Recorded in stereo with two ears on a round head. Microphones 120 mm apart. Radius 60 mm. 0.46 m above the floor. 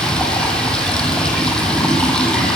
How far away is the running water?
About 1.4 m.